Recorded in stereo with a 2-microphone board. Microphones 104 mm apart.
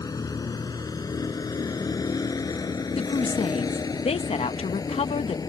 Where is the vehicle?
40° left (ahead or behind).